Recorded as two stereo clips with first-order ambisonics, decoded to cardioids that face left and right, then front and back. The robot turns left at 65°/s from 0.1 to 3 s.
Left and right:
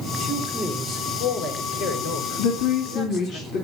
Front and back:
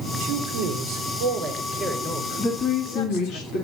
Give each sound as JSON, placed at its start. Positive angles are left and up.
{"t": 0.2, "sound": "a man speaking", "azimuth_deg": -170, "distance_m": 4.5}
{"t": 2.4, "sound": "a woman speaking", "azimuth_deg": 75, "distance_m": 3.0}